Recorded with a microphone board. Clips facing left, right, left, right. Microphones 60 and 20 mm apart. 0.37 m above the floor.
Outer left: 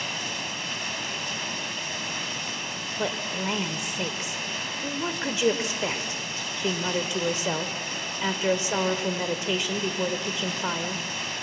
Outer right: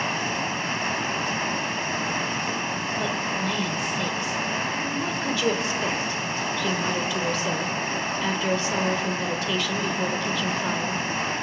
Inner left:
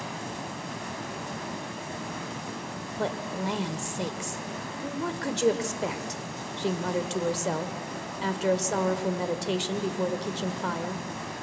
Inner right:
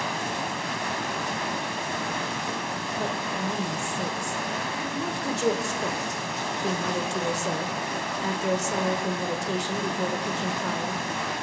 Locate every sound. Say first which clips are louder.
0.0 s running water: outer right 6 dB, inner right 7 dB; 40° right (ahead or behind), 0.9 m
3.0 s a woman speaking: even, inner left 1 dB; 20° left (ahead or behind), 1.3 m